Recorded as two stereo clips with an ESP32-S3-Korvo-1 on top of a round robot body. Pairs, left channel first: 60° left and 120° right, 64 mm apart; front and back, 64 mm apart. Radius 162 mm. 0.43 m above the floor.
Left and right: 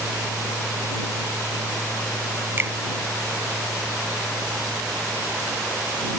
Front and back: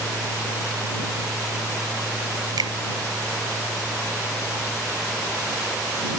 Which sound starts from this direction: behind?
A finger snap, at 2.6 s.